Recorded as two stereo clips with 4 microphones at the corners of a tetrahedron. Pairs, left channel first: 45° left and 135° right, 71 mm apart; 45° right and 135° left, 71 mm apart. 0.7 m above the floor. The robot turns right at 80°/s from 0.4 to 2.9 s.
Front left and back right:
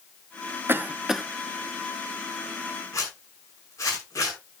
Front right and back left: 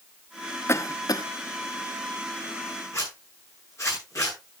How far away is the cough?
About 0.8 m.